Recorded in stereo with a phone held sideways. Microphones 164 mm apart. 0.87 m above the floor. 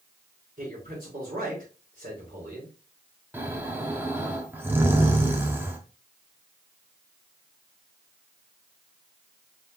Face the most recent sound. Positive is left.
turn(degrees=-10)  # may be behind; listen again after turning